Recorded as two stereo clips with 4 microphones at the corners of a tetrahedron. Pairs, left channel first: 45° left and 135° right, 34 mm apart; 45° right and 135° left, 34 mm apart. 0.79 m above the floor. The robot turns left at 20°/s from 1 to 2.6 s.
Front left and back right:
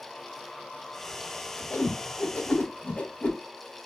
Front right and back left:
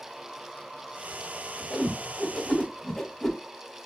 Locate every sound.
1.7 s a whoosh: 50° left, 0.7 m; by 3.4 s 30° left, 0.7 m